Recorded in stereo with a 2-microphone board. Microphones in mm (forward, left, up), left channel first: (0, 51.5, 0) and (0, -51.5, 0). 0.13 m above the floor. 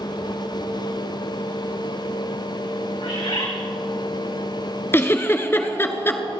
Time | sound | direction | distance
3.0 | a bird | 70° left (ahead or behind) | 3.5 m
4.9 | a giggle | 25° left (ahead or behind) | 0.9 m